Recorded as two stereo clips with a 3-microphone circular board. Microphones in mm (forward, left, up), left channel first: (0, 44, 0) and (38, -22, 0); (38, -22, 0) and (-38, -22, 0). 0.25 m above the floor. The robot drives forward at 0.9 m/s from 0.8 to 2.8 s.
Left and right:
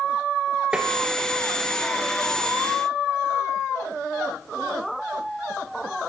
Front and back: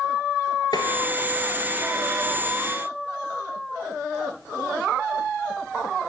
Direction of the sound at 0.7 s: 15° left.